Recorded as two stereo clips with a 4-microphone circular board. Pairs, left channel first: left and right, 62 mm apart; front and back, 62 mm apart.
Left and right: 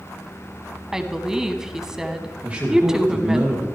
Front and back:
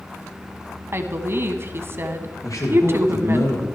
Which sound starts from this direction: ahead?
A man speaking, at 2.4 s.